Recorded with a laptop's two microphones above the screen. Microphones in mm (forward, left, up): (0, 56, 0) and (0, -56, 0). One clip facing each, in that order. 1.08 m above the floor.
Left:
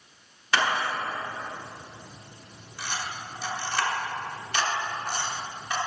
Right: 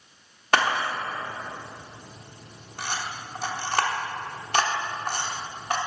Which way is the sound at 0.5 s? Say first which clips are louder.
Right 2 dB; 50° right (ahead or behind).